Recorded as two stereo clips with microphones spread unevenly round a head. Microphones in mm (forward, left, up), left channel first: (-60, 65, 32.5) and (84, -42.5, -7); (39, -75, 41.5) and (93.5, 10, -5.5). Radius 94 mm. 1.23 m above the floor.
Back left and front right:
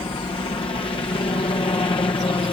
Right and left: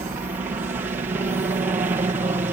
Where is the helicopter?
80° left.